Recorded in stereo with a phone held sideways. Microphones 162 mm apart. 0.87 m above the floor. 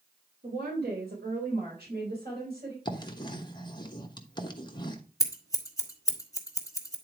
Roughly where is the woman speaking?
Right.